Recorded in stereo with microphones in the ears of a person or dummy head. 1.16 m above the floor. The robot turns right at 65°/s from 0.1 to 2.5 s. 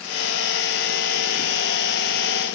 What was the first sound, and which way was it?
Only background noise.